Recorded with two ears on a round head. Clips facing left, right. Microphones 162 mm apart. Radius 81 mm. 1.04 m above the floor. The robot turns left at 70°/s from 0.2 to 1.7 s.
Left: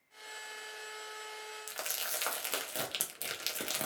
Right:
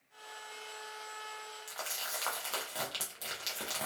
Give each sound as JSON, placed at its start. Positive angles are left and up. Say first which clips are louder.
{"t": 1.7, "sound": "crumpling", "louder": "even", "side_deg": 30, "distance_m": 0.5}